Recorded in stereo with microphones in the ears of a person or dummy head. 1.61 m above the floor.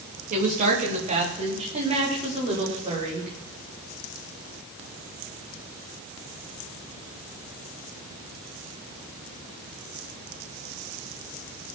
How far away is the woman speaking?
About 3 m.